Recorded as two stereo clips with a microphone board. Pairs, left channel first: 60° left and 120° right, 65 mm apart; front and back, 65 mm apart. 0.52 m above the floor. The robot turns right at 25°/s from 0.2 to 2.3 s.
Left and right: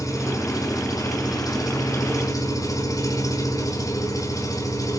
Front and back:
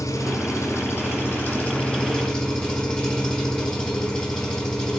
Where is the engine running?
20° left, 4.5 m; by 5.0 s 75° left, 4.5 m.